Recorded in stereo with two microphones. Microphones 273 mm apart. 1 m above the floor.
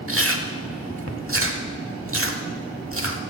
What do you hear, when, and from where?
0.1 s chewing: 50° right (ahead or behind), 0.9 m